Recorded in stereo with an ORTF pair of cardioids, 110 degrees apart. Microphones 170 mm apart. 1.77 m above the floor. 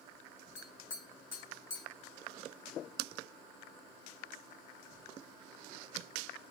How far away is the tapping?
About 3 m.